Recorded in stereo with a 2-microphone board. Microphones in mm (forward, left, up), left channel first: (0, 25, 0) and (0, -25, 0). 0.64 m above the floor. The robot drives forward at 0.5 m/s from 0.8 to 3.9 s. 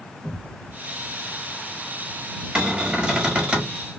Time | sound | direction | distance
0.2 | a cupboard door | 20° left (ahead or behind) | 1.3 m
2.5 | a cupboard door | 15° right (ahead or behind) | 1.3 m